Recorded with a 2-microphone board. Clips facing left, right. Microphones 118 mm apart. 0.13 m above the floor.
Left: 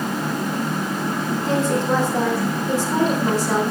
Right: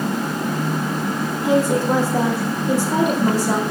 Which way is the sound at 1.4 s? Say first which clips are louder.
Right 4 dB; 10° right (ahead or behind).